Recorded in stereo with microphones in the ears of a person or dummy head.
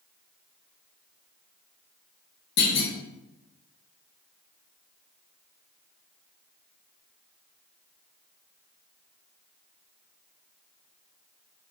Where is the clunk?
65° left (ahead or behind), 1.8 m.